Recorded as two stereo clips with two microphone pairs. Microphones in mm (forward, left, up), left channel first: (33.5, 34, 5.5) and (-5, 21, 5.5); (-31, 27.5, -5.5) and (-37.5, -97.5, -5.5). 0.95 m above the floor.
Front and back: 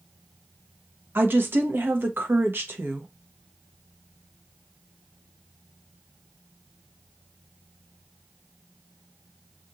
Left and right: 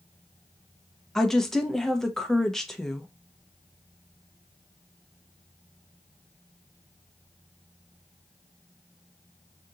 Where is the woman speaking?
175° left, 0.8 m.